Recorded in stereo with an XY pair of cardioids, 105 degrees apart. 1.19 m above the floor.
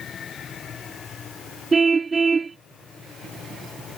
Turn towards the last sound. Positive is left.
turn(degrees=-30)